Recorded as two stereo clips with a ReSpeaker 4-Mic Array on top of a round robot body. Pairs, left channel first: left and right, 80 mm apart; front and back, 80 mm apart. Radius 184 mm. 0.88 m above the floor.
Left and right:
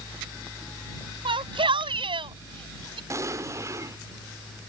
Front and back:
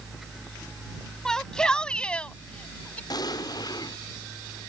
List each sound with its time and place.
1.2 s a shout: 85° right; by 3.0 s 75° right
3.1 s an explosion: 35° right